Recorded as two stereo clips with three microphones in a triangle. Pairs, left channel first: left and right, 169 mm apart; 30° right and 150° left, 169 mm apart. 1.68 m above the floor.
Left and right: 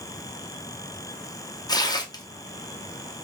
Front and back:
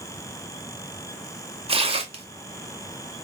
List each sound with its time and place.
1.7 s tearing paper: 135° left, 0.6 m